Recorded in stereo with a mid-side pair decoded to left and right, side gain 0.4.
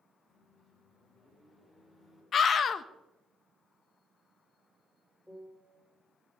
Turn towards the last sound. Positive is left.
turn(degrees=10)